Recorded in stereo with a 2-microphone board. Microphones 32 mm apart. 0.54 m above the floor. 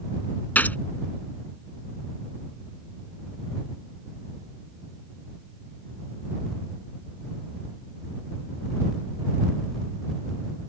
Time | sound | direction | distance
0.6 | a gunshot | 60° left (ahead or behind) | ?